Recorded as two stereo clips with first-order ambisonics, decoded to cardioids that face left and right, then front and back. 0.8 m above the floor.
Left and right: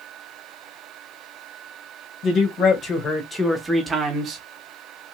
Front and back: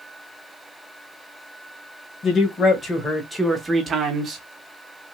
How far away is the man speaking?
About 1.2 m.